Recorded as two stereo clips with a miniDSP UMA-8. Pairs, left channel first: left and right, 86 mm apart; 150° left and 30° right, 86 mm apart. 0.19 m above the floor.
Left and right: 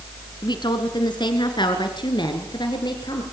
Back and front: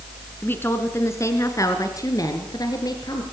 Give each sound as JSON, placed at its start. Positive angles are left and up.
{"t": 0.4, "sound": "a woman speaking", "azimuth_deg": 90, "distance_m": 2.5}